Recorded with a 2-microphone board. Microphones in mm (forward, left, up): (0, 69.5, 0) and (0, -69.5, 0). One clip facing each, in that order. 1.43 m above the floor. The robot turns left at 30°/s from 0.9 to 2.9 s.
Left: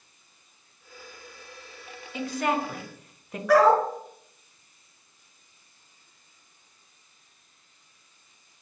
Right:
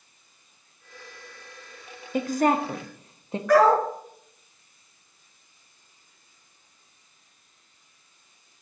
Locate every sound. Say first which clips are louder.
2.1 s a woman speaking: right 5 dB; 50° right (ahead or behind), 0.5 m; by 3.4 s 25° right (ahead or behind), 0.5 m
3.5 s a dog barking: even; 10° left (ahead or behind), 2 m